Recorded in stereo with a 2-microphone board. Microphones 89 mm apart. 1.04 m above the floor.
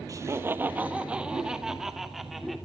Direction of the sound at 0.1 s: 35° right (ahead or behind).